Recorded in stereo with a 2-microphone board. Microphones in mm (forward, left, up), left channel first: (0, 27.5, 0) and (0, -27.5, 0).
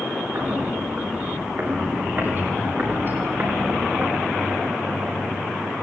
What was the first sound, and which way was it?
Footsteps, 45° right (ahead or behind).